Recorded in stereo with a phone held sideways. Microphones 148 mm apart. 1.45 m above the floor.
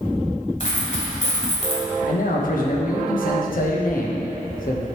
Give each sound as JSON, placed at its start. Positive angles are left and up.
{"t": 0.6, "sound": "a dropped coin", "side_deg": 55, "distance_m": 1.9}
{"t": 2.1, "sound": "a man speaking", "side_deg": 65, "distance_m": 1.2}